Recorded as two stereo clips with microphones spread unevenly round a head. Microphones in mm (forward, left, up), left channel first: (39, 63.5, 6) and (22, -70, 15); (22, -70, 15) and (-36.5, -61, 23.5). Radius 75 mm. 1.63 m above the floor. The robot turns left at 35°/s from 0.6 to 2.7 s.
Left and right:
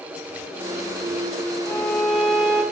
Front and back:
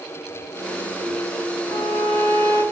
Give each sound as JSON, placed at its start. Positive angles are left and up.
{"t": 1.7, "sound": "a violin", "azimuth_deg": 15, "distance_m": 3.5}